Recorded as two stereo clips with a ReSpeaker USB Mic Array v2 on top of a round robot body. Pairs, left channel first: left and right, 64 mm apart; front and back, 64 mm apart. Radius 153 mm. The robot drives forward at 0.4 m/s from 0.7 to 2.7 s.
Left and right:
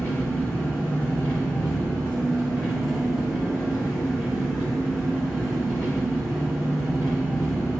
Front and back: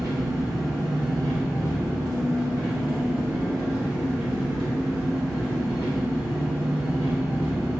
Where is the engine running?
160° left, 1.5 m; by 7.8 s 165° left, 2.5 m.